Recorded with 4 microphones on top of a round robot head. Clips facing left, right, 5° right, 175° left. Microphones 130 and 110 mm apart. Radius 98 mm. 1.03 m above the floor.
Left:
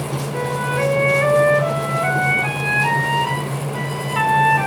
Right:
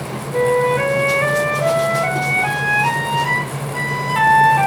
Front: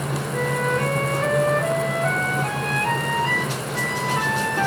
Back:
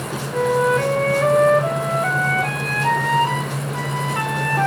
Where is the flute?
140° right, 3 m.